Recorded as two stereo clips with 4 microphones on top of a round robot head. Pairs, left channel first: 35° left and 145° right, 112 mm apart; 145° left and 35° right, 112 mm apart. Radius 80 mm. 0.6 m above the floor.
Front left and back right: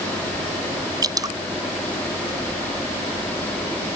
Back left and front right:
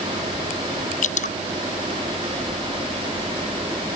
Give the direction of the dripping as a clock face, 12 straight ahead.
7 o'clock.